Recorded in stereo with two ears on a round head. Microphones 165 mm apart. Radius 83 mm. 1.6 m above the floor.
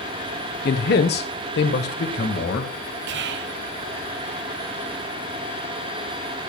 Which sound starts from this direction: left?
A man speaking, at 0.7 s.